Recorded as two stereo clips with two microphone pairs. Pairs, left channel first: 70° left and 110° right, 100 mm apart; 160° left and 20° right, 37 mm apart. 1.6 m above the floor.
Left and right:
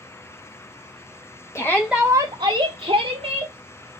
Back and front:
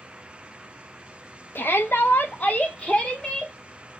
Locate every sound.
1.6 s a shout: 130° left, 0.8 m; by 3.5 s 115° right, 1.8 m